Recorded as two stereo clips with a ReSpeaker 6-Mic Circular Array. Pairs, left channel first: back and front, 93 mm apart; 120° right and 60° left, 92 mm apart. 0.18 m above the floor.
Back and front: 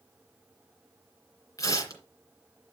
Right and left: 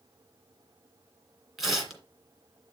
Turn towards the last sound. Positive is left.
turn(degrees=150)